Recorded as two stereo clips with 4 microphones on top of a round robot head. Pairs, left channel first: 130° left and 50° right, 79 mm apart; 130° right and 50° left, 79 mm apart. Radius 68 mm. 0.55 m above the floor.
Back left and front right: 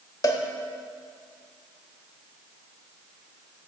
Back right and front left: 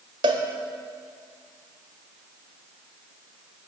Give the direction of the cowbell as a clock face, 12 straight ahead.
9 o'clock.